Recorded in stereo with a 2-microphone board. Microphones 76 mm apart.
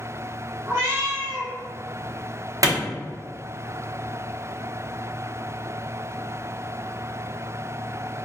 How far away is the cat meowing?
About 1.3 m.